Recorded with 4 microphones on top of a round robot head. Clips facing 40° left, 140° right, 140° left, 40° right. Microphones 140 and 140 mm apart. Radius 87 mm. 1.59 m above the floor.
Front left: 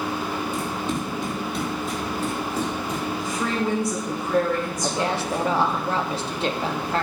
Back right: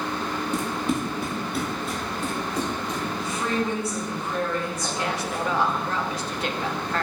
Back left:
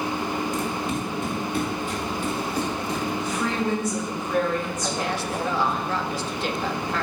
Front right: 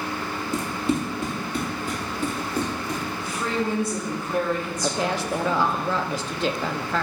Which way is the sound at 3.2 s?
20° left.